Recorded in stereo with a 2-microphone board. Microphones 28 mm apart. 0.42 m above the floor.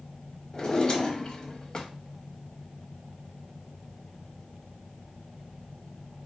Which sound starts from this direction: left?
A drawer, at 0.5 s.